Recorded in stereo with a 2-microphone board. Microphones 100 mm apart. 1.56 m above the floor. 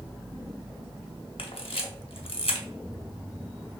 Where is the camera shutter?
70° left (ahead or behind), 0.7 m.